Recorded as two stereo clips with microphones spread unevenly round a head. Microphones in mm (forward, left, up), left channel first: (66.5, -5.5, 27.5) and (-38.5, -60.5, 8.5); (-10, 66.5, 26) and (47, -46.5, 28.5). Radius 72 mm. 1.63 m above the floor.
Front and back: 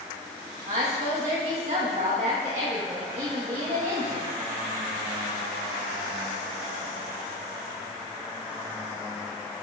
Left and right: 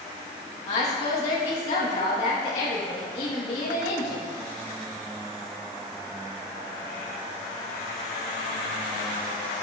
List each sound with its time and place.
0.7 s a woman speaking: 165° left, 3 m